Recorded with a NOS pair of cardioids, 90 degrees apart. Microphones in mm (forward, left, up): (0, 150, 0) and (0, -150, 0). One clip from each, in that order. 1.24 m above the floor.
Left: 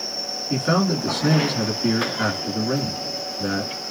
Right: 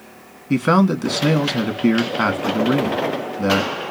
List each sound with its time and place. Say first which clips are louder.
0.5 s a man speaking: right 5 dB; 60° right, 2 m